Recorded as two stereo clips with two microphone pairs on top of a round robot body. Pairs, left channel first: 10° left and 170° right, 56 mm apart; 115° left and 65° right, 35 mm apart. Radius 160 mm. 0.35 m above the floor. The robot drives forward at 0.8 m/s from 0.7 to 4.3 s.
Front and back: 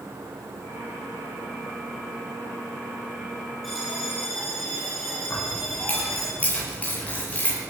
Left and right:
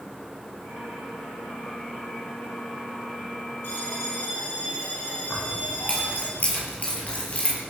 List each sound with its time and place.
3.6 s a bell: 100° left, 9 m
5.3 s keys jangling: 70° left, 7.5 m